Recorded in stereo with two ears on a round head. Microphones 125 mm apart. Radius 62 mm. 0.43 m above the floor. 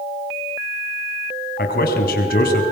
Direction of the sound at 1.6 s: 70° left (ahead or behind).